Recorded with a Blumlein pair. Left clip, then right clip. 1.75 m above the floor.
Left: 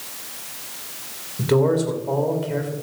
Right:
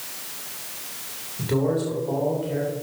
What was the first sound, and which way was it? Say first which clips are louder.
A man speaking: left 5 dB; 20° left.